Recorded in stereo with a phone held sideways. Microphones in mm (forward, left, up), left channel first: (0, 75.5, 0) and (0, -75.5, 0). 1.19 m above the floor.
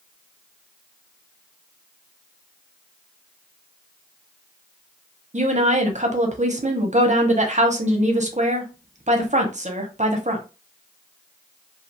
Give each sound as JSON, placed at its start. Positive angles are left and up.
{"t": 5.3, "sound": "a woman speaking", "side_deg": -50, "distance_m": 0.7}